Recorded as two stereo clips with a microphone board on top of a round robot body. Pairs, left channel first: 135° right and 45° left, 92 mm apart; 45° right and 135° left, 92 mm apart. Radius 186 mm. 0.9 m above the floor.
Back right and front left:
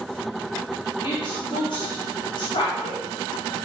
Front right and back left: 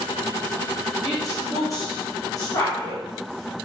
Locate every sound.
1.0 s a woman speaking: 100° right, 2.5 m